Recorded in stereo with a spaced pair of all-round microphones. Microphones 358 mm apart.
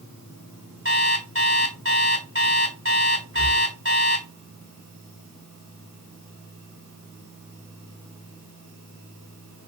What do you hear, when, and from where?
0.8 s an alarm clock: 35° right (ahead or behind), 4 m
3.3 s breathing: 35° right (ahead or behind), 2.5 m